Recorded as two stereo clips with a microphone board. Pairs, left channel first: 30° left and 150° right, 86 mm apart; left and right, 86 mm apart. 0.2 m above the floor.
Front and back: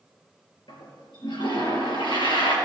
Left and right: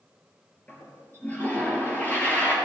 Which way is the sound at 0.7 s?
20° left.